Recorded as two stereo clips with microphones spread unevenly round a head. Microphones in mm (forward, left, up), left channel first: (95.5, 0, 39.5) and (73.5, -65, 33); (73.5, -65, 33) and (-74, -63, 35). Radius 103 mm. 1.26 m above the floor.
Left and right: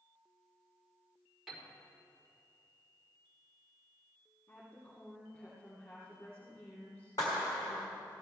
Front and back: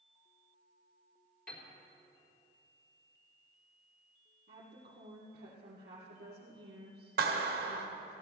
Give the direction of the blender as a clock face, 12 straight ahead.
No blender in this recording.